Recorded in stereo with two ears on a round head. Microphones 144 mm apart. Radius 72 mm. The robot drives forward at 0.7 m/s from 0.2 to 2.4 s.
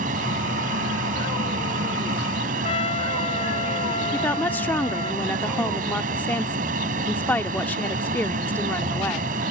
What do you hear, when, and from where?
0.0 s an aircraft: 50° right (ahead or behind)
2.6 s a trumpet: 35° left (ahead or behind)
4.1 s a woman speaking: 10° left (ahead or behind)